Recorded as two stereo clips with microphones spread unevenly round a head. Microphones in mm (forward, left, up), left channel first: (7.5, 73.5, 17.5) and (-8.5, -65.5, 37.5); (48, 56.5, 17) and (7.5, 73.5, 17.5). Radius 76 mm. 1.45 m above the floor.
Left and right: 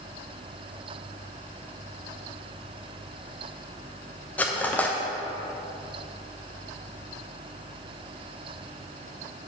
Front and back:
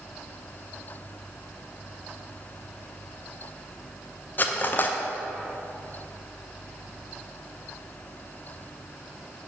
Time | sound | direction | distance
4.4 | cutlery clinking | straight ahead | 0.6 m